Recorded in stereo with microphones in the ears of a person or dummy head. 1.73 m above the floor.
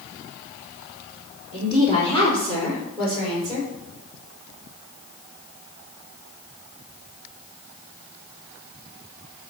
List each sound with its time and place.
1.5 s a woman speaking: 25° left (ahead or behind), 4.5 m; by 3.7 s 5° right (ahead or behind), 5 m